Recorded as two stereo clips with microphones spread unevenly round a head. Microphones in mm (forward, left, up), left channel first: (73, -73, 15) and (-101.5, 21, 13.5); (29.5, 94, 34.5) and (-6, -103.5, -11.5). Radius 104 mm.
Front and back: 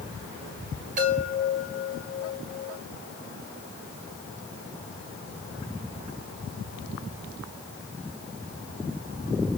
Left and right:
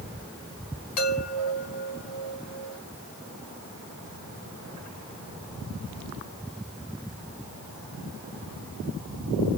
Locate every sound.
1.0 s a chime: 95° left, 8 m